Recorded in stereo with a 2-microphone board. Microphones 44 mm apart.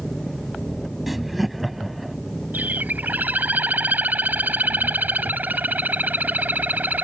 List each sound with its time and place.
0.0 s an engine running: 10° left (ahead or behind)
1.1 s laughter: centre (ahead or behind)
2.5 s a bird: 45° right (ahead or behind)